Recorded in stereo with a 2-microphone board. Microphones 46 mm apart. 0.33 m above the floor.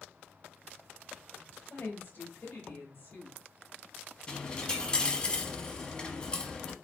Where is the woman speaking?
50° left (ahead or behind), 2 m.